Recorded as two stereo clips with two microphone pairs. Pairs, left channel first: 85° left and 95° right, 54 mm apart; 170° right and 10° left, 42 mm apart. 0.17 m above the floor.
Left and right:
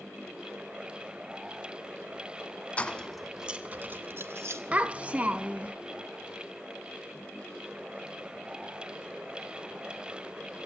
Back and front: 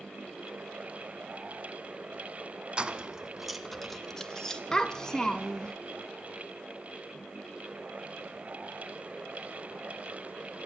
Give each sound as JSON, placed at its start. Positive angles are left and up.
{"t": 2.8, "sound": "keys jangling", "azimuth_deg": 40, "distance_m": 0.8}
{"t": 4.7, "sound": "a child speaking", "azimuth_deg": -110, "distance_m": 0.7}